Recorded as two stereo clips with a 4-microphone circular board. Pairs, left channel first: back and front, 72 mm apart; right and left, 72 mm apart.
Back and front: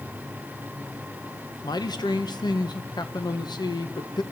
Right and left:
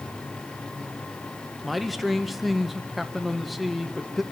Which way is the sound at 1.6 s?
Straight behind.